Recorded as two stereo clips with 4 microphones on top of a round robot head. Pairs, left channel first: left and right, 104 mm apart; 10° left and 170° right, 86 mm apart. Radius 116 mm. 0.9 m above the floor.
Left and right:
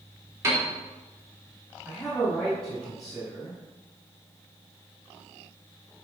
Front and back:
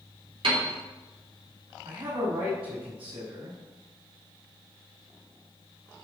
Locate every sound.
0.4 s a piano: 155° right, 3.5 m
1.9 s a man speaking: 175° left, 5 m